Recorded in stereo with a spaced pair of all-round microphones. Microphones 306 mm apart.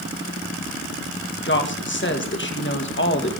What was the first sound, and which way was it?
A woman speaking, 40° left (ahead or behind).